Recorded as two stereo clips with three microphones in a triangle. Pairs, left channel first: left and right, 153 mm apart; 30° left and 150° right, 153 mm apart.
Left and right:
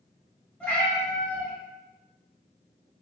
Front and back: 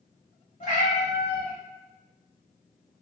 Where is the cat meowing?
10° left, 1.3 m.